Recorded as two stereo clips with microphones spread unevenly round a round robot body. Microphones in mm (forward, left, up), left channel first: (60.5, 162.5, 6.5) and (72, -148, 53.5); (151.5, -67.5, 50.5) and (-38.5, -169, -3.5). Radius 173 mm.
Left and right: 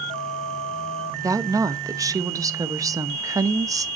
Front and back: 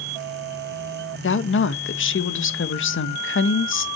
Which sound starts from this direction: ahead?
A woman speaking, at 1.2 s.